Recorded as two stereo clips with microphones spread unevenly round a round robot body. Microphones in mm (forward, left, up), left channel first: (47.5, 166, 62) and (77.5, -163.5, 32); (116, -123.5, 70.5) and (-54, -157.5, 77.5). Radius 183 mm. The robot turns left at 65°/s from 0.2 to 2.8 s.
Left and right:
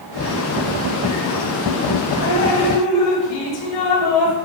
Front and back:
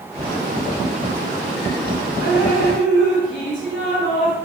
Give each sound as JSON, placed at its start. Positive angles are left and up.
{"t": 2.2, "sound": "dripping", "azimuth_deg": 125, "distance_m": 2.5}